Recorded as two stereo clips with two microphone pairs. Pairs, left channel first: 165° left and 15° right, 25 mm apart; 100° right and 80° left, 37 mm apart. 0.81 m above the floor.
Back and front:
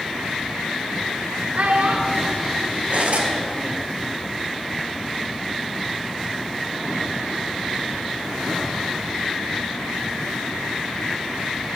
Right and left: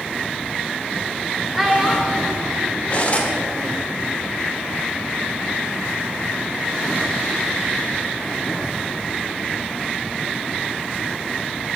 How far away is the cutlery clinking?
About 1.5 m.